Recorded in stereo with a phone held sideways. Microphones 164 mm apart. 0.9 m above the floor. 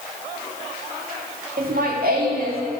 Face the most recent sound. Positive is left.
turn(degrees=-70)  # may be behind; listen again after turning